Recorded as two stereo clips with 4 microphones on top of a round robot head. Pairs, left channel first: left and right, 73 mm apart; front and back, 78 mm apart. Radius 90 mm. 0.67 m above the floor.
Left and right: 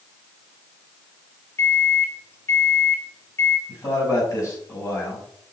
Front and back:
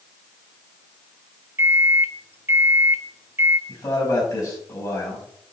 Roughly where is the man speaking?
Ahead left.